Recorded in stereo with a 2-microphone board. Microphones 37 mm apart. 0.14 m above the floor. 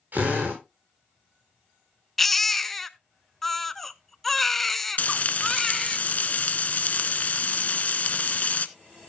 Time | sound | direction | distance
0.1 | a drill | 50° right (ahead or behind) | 7 m
2.2 | a baby crying | 5° left (ahead or behind) | 0.6 m
5.0 | frying | 45° left (ahead or behind) | 0.7 m